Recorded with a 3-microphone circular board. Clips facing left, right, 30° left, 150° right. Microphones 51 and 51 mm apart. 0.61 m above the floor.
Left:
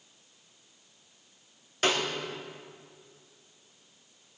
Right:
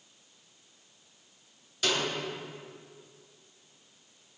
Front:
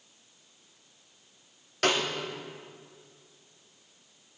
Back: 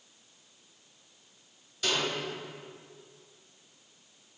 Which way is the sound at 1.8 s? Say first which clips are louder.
Left 3 dB, front 5 dB; 45° left.